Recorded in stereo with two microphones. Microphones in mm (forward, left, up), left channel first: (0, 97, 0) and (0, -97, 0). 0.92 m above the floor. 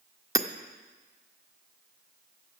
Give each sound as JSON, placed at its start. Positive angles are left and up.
{"t": 0.3, "sound": "hammering", "side_deg": -15, "distance_m": 0.6}